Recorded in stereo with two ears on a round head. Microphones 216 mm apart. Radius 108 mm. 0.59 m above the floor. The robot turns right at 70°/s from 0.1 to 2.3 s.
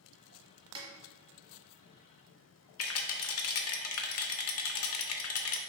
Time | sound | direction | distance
0.8 | a snare drum | 20° right (ahead or behind) | 1.1 m
2.8 | a rattle | 60° left (ahead or behind) | 0.6 m